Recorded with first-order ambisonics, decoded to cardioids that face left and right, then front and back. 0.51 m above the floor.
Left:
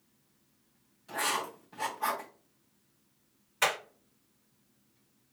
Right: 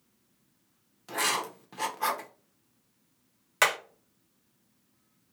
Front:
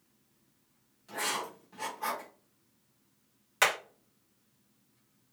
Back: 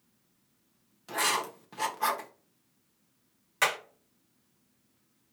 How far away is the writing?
About 0.9 m.